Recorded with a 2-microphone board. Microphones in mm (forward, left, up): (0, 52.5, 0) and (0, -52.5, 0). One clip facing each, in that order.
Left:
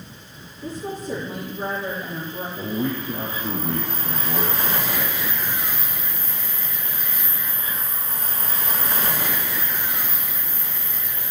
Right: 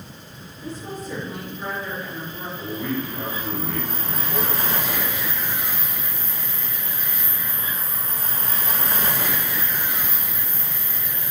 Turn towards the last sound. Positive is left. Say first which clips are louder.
# left 1 dB
turn(degrees=35)  # may be behind; listen again after turning